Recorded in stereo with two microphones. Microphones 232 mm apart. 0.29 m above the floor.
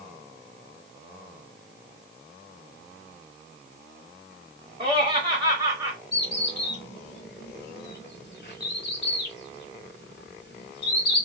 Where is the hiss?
I don't hear a hiss.